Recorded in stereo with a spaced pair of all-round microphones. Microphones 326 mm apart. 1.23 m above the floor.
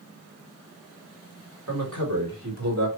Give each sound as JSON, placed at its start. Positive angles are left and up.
{"t": 1.7, "sound": "a man speaking", "side_deg": -65, "distance_m": 3.0}